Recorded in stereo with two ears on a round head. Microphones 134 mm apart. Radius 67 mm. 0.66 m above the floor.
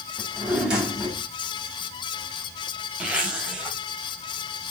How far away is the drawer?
About 3 m.